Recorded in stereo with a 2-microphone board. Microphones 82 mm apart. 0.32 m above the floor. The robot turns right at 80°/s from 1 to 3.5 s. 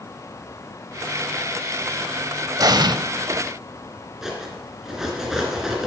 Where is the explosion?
45° right (ahead or behind), 0.5 m; by 3.0 s 60° right (ahead or behind), 0.5 m.